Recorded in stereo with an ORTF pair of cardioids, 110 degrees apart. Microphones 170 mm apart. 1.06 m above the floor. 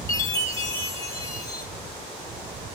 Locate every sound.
0.1 s a chime: 20° left, 1.4 m